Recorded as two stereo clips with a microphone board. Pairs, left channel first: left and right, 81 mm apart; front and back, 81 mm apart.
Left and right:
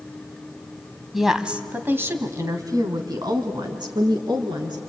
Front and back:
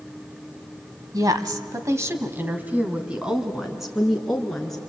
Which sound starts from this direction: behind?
A woman speaking, at 1.1 s.